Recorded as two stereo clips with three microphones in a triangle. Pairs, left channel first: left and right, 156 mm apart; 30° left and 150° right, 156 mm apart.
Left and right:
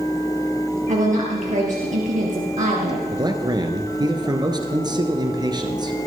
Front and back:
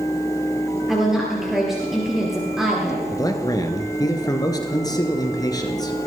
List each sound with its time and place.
0.9 s a woman speaking: 65° right, 3.5 m
3.1 s a man speaking: 35° right, 1.9 m